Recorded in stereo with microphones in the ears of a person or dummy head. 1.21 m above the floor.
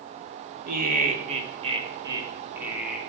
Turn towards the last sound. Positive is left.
turn(degrees=-10)  # may be behind; listen again after turning